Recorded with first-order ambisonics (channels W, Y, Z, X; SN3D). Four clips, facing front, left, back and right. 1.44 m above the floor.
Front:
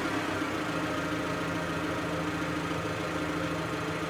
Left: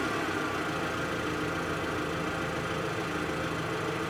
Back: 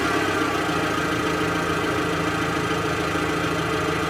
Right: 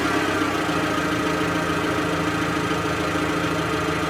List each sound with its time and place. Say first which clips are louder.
0.0 s an engine running: right 9 dB, back 9 dB; 120° right, 3 m